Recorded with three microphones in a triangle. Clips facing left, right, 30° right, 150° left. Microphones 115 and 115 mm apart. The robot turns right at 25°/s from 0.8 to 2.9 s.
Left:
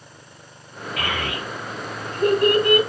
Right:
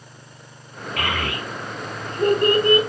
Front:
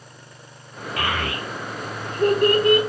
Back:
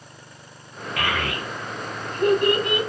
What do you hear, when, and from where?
1.0 s a child speaking: 85° right, 1.1 m; by 2.8 s 40° right, 1.1 m